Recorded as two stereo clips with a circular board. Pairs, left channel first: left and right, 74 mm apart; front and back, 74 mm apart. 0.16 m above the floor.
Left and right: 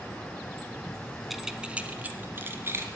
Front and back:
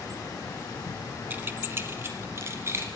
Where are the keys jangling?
175° right, 0.9 m; by 2.9 s 135° right, 1.6 m.